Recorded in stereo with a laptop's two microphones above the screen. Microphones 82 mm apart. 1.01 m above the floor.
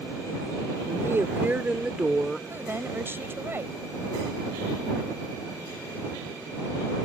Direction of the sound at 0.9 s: 40° right (ahead or behind).